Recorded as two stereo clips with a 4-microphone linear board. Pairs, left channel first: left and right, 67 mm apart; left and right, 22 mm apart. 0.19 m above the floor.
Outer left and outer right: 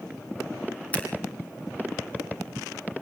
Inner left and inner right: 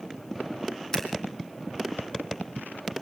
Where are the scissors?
20° left (ahead or behind), 3 m.